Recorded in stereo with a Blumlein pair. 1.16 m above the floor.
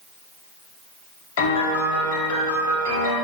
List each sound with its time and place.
1.4 s a piano: 55° left, 1.2 m